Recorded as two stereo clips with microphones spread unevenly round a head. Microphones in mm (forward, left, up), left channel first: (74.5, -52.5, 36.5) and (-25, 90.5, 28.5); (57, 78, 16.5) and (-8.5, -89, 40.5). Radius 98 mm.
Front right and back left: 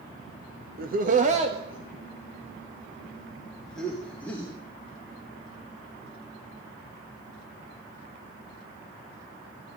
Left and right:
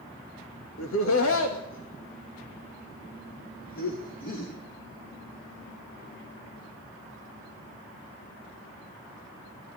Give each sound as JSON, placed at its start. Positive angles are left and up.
{"t": 0.8, "sound": "laughter", "azimuth_deg": 90, "distance_m": 1.5}